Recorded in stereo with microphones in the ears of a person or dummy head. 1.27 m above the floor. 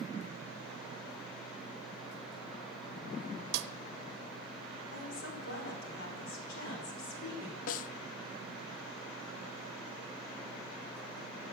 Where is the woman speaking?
65° left (ahead or behind), 4.5 m.